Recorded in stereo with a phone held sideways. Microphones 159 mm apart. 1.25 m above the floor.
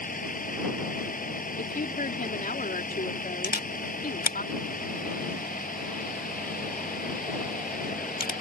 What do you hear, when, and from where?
0.0 s a vehicle: 60° left (ahead or behind)
1.6 s a woman speaking: 65° left (ahead or behind)
3.4 s a camera shutter: 65° left (ahead or behind)